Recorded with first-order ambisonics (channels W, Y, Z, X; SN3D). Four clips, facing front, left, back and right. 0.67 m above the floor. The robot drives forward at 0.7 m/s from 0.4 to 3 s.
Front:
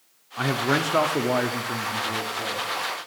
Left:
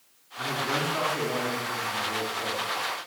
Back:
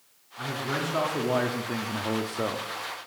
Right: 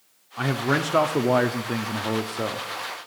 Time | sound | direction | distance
0.4 | a man speaking | 40° right | 1.2 m